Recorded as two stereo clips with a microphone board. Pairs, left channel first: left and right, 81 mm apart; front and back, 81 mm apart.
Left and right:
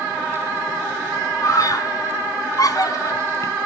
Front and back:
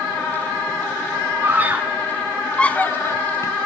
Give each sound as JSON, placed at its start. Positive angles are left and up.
{"t": 1.4, "sound": "a scream", "azimuth_deg": 125, "distance_m": 1.7}